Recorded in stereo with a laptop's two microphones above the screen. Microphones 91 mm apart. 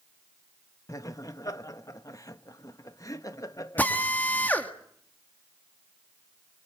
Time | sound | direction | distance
0.9 | laughter | 40° left (ahead or behind) | 1.2 m
3.8 | a drill | 20° left (ahead or behind) | 1.6 m